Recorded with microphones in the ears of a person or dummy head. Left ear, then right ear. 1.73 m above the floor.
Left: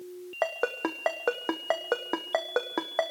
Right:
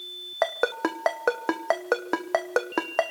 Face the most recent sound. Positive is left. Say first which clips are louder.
# right 4 dB
turn(degrees=-10)  # may be behind; listen again after turning